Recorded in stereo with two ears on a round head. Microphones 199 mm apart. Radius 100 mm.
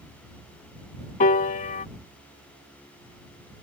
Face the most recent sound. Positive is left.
turn(degrees=35)  # may be behind; listen again after turning